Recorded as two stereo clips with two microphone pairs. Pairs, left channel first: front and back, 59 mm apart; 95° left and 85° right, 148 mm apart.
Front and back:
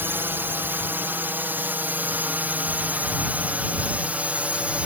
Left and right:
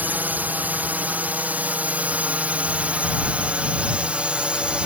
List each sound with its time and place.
0.0 s a drone: 155° right